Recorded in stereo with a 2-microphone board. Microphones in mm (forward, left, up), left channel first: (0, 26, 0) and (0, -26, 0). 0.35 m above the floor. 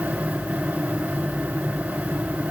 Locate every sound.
Only background noise.